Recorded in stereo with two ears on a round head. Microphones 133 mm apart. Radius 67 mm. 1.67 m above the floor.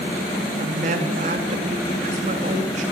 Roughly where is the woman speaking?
Right.